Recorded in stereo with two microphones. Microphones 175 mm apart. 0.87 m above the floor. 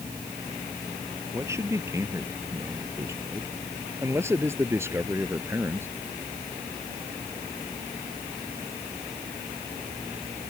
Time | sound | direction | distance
1.3 | a man speaking | 15° right (ahead or behind) | ?